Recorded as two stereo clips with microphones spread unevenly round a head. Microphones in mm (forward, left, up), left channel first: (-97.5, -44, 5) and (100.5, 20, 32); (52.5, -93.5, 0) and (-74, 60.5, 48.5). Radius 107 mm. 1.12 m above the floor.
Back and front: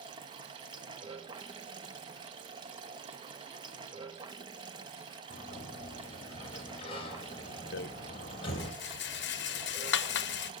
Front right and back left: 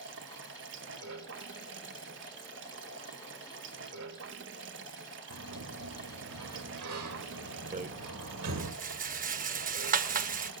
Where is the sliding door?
135° left, 2.5 m.